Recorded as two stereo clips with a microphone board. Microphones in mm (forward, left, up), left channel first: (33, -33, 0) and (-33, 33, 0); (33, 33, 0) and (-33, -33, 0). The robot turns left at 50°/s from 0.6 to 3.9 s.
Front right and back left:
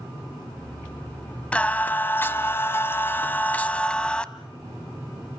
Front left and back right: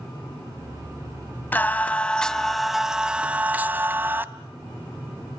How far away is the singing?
About 1.0 m.